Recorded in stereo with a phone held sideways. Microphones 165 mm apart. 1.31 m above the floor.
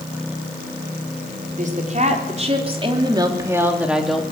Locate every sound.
1.5 s a woman speaking: 50° right (ahead or behind), 5 m; by 4.2 s 5° left (ahead or behind), 3 m